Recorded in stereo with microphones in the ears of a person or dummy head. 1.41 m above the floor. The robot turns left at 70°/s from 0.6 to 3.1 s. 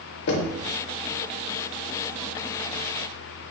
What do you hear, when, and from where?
0.3 s knocking: 65° left (ahead or behind), 0.6 m